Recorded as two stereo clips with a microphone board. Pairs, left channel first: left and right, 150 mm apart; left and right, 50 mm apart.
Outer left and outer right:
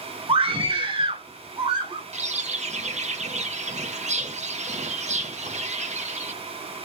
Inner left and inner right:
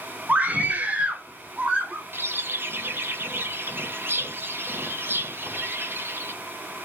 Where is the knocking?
No knocking in this recording.